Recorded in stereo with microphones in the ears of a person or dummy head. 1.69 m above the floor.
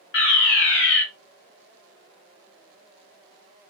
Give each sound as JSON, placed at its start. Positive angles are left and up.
{"t": 0.1, "sound": "a fire alarm", "side_deg": 55, "distance_m": 1.3}